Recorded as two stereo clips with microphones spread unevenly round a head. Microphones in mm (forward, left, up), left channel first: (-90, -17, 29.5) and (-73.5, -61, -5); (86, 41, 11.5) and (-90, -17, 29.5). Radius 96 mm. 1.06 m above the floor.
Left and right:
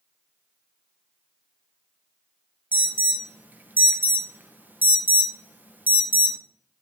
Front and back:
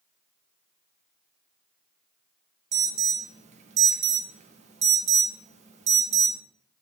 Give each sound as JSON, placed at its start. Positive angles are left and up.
{"t": 2.7, "sound": "an alarm", "azimuth_deg": -105, "distance_m": 0.9}